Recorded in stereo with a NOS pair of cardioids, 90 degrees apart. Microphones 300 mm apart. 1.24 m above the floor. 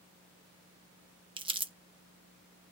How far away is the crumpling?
About 0.9 m.